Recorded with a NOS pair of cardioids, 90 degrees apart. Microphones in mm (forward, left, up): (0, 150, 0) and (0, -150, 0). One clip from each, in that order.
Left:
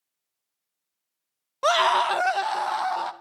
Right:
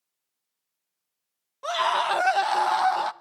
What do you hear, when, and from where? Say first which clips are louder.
1.6 s a scream: left 4 dB; 65° left, 0.6 m; by 3.1 s 35° right, 0.8 m